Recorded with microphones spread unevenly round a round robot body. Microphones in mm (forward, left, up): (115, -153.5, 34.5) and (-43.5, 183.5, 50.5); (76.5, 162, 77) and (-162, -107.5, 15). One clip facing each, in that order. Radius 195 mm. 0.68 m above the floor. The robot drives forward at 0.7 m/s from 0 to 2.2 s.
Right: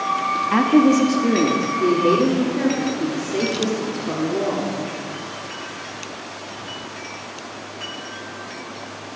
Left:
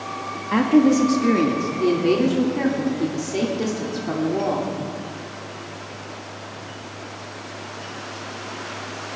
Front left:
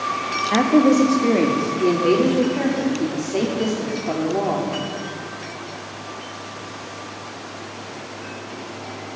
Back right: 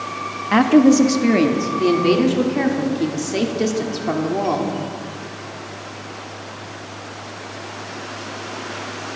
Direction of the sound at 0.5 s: 140° right.